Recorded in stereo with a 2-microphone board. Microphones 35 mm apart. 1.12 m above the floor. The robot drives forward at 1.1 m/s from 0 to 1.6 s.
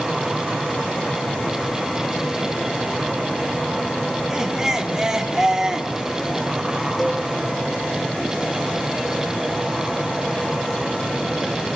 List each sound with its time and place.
4.3 s laughter: 20° right (ahead or behind), 3.5 m
7.0 s a cowbell: 5° left (ahead or behind), 5.5 m